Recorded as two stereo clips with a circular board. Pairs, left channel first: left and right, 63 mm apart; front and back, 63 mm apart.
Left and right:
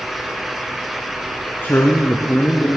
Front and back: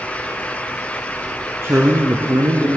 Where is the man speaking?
140° left, 2.5 m; by 2.8 s 165° left, 2.5 m.